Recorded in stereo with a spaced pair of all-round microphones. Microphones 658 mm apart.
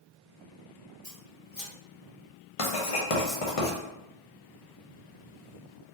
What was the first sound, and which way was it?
Scissors, 35° left (ahead or behind).